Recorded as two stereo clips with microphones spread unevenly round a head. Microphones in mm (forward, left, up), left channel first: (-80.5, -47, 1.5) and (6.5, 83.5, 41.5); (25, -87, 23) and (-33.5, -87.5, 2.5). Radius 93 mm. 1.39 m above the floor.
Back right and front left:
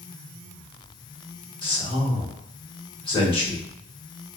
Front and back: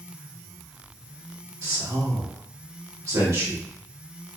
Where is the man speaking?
175° right, 1.6 m.